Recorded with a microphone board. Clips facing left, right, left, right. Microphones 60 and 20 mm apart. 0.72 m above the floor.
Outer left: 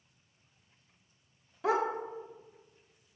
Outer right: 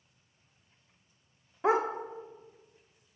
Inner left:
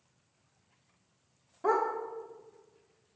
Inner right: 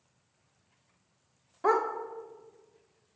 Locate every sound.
1.6 s a dog barking: 25° right (ahead or behind), 0.5 m